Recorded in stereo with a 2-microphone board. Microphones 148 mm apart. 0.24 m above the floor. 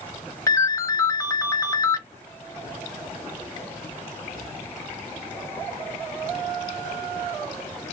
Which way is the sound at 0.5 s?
20° left (ahead or behind).